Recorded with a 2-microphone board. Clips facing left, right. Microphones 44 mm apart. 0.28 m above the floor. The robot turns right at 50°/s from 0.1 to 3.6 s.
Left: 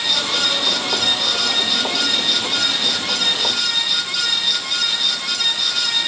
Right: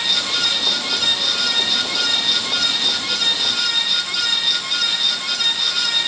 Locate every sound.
Only background noise.